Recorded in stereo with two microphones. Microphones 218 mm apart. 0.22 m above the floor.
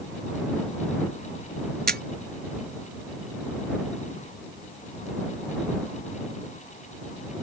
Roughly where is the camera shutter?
Right.